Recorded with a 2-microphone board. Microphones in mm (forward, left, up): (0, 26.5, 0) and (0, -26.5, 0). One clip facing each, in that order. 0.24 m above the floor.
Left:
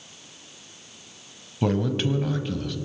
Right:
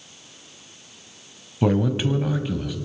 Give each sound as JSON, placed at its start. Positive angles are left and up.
{"t": 1.6, "sound": "a man speaking", "side_deg": -10, "distance_m": 1.2}